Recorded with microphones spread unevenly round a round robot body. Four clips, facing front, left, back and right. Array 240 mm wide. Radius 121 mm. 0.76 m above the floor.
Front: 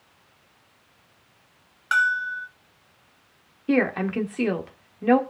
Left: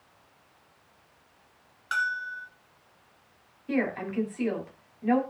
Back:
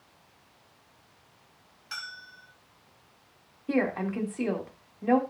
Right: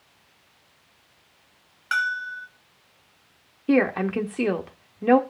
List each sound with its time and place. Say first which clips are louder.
1.9 s a bell: right 4 dB, front 21 dB; 15° right, 1.3 m
3.7 s a woman speaking: right 8 dB, front 5 dB; 65° right, 1.9 m